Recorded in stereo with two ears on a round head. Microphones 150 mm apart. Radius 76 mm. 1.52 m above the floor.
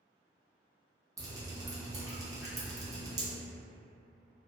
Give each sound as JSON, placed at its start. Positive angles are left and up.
{"t": 1.2, "sound": "dripping", "side_deg": -20, "distance_m": 0.7}